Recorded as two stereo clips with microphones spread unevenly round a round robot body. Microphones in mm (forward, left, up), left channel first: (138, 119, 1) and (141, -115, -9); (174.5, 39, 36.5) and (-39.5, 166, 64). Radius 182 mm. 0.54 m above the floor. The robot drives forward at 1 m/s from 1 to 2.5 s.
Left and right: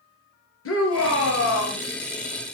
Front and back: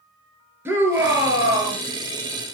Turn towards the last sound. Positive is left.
turn(degrees=75)